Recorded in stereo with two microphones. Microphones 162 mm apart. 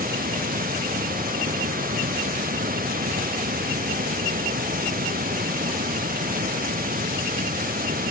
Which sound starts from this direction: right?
Running water, at 0.0 s.